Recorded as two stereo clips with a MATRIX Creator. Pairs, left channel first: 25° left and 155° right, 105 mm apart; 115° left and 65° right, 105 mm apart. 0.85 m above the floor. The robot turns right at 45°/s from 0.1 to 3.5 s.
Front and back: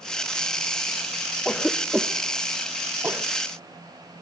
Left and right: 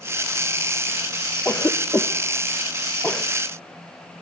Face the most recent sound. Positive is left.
turn(degrees=-175)